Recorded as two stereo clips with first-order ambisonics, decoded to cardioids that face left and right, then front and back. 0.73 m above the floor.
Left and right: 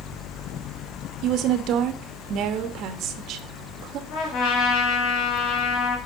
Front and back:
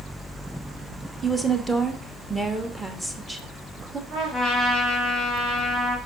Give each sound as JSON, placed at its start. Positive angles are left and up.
{"t": 1.2, "sound": "a woman speaking", "azimuth_deg": -100, "distance_m": 1.1}
{"t": 4.1, "sound": "a trumpet", "azimuth_deg": 115, "distance_m": 3.5}